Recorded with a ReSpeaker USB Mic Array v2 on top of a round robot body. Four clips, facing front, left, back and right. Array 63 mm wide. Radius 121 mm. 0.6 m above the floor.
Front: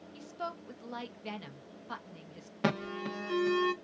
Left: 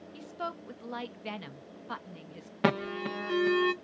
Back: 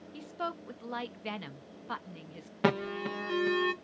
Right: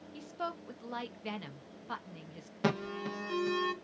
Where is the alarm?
110° left, 0.9 m.